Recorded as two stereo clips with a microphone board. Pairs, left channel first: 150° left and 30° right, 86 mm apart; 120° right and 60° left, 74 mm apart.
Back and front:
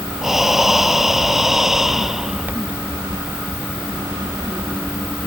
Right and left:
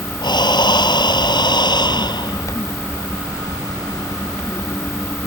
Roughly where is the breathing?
Behind right.